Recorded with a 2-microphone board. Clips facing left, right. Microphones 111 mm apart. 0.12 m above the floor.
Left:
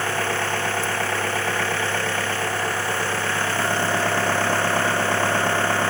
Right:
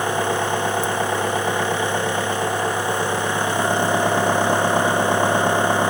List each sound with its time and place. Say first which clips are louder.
0.0 s an engine running: right 4 dB; 15° right (ahead or behind)